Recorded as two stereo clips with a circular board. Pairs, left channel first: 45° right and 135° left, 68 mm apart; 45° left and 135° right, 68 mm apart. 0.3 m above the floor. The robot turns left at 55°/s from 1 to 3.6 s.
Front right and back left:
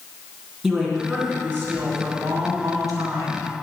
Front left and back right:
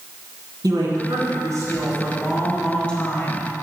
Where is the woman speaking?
140° right, 3.5 m; by 3.5 s 85° left, 3.5 m.